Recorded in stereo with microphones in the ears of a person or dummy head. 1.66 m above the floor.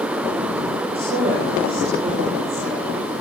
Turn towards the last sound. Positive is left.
turn(degrees=-40)  # may be behind; listen again after turning